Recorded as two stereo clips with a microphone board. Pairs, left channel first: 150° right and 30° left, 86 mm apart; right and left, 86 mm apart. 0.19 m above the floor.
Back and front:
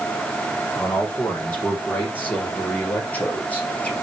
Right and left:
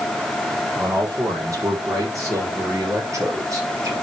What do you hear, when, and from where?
0.8 s a man speaking: 140° left, 6 m